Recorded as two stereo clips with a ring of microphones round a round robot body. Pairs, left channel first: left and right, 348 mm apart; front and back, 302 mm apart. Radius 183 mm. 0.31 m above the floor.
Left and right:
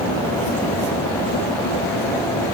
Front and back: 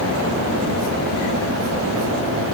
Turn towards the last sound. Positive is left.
No sound to turn to.